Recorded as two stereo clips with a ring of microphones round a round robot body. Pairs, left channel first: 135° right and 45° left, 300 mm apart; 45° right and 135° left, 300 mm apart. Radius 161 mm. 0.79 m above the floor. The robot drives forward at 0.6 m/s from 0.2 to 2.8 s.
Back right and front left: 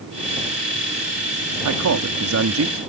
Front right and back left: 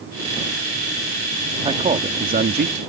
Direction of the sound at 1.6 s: 65° left.